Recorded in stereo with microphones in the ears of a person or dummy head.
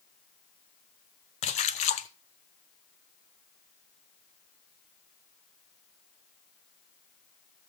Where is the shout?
No shout in this recording.